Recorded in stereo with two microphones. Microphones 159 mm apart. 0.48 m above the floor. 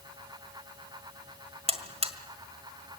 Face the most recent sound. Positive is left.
turn(degrees=-40)  # may be behind; listen again after turning